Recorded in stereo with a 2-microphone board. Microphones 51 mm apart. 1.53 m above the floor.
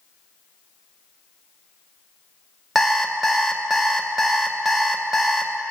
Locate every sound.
2.8 s an alarm clock: centre (ahead or behind), 0.7 m